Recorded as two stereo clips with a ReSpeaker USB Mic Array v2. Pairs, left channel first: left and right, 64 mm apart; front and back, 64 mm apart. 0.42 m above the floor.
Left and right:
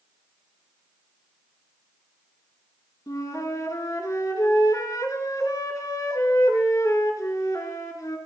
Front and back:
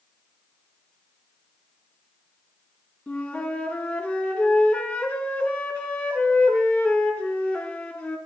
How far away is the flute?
About 4 m.